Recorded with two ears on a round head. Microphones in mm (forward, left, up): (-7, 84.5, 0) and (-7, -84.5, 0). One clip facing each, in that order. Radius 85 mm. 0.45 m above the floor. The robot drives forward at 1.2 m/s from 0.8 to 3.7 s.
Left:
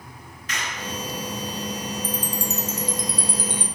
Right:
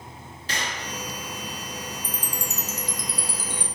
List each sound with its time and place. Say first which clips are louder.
0.5 s a clap: left 1 dB; 25° right (ahead or behind), 5 m; by 1.0 s 30° right (ahead or behind), 4.5 m
2.0 s a chime: left 6 dB; 35° left (ahead or behind), 1.5 m; by 3.6 s 20° left (ahead or behind), 3 m